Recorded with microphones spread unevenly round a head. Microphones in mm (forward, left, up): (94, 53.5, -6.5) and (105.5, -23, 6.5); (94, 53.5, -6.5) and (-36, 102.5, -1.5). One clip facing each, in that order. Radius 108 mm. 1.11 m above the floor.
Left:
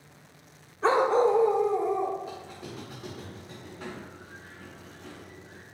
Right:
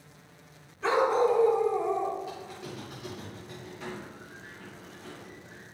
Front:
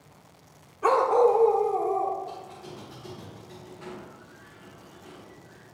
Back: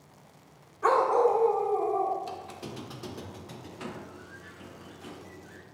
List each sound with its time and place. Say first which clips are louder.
0.8 s a dog barking: left 2 dB, front 3 dB; 55° left, 0.9 m; by 2.1 s 15° left, 1.2 m
2.2 s a squeak: even, even; 175° left, 0.9 m